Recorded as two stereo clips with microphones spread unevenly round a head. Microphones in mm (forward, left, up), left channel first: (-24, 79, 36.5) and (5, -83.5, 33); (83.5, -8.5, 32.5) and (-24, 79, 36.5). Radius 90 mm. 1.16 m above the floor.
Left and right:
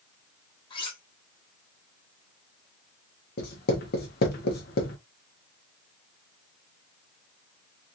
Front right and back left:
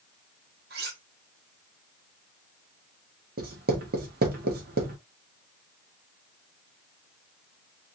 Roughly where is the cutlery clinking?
Behind.